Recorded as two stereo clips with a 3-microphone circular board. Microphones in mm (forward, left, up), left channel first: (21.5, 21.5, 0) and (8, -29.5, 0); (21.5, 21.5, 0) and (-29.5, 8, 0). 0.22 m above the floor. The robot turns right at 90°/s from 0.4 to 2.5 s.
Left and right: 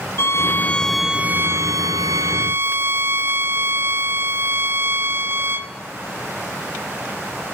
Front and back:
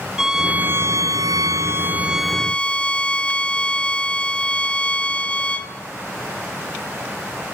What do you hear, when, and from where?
0.2 s a violin: 115° left, 1.2 m; by 5.7 s 55° right, 1.2 m